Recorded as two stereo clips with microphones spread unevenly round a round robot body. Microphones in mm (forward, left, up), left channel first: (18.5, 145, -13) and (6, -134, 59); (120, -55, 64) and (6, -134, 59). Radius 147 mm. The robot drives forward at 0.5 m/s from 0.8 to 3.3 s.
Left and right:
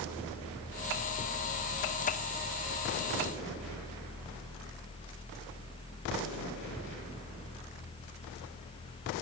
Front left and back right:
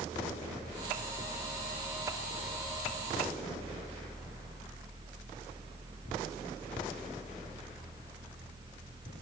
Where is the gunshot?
No gunshot in this recording.